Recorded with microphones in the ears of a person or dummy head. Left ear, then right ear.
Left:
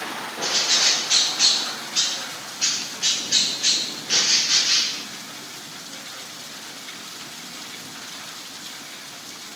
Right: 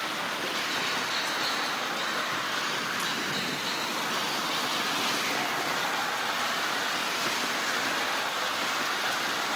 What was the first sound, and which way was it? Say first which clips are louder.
A bird: left 14 dB; 80° left.